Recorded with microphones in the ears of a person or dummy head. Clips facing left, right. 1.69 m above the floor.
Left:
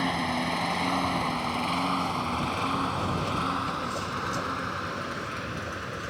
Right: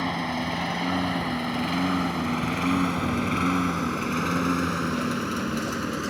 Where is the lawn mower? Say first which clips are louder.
Right 1 dB; 5° left (ahead or behind); by 6.1 s 50° right (ahead or behind).